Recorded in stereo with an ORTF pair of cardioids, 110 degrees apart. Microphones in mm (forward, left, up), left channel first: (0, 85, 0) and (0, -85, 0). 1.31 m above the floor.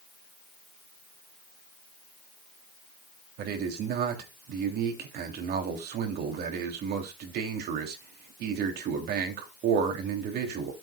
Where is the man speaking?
70° right, 3 m.